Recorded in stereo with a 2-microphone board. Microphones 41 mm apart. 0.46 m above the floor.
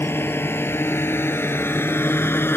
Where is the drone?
70° left (ahead or behind).